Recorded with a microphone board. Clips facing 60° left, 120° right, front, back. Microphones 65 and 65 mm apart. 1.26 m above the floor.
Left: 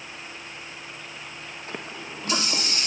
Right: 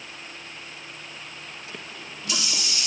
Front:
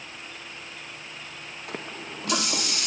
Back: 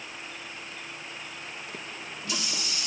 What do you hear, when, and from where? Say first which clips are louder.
1.7 s a running tap: left 7 dB, front 3 dB; 15° left